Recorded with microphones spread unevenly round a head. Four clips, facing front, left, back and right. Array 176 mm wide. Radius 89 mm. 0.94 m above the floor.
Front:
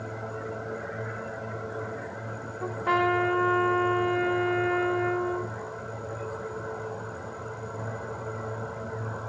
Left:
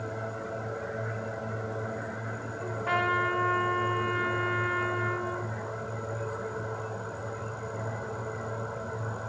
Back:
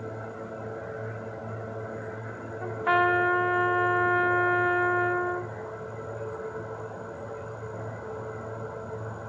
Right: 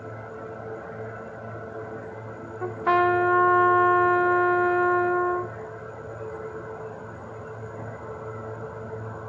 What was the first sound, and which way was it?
A trumpet, 80° right.